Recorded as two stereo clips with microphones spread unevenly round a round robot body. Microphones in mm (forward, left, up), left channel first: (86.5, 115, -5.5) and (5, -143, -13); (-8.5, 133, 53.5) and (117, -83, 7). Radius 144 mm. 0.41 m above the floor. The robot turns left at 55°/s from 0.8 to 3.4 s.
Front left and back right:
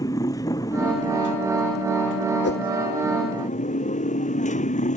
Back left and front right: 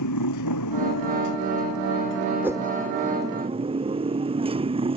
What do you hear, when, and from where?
0.0 s a motorcycle: 150° left; by 5.0 s 10° left
2.4 s a whoosh: 25° left; by 2.7 s 10° left